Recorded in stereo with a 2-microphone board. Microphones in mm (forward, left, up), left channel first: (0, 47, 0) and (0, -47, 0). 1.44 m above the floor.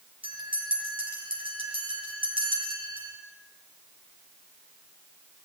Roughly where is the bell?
Right.